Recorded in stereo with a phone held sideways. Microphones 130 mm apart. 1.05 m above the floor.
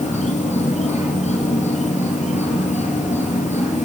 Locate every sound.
0.0 s an insect: 65° left (ahead or behind), 2.5 m